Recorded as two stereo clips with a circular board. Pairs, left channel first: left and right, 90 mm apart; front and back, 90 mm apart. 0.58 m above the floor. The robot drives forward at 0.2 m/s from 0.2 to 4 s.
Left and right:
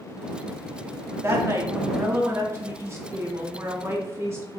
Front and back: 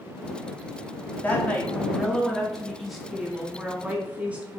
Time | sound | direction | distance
1.2 | a woman speaking | 55° right | 1.0 m